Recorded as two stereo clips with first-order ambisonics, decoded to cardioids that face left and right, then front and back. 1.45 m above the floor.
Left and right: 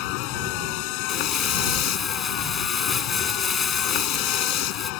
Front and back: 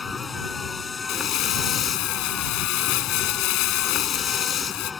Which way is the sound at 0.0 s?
70° left.